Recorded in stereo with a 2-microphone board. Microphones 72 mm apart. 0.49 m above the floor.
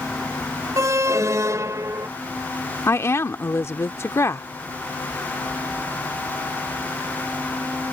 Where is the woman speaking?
40° left (ahead or behind).